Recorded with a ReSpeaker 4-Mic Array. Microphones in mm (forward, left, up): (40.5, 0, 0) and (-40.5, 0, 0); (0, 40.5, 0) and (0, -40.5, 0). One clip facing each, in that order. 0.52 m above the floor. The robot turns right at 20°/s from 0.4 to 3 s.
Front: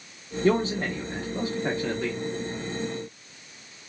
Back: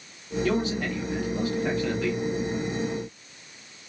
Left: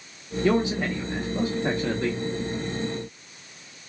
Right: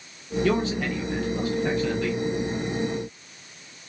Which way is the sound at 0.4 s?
25° left.